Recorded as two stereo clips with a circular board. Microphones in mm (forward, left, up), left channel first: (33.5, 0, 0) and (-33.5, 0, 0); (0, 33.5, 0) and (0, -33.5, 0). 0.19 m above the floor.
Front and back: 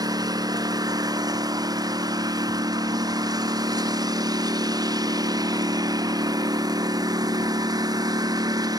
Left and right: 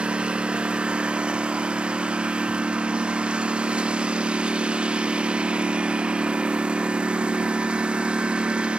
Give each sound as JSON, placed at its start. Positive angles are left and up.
{"t": 0.0, "sound": "a lawn mower", "azimuth_deg": -165}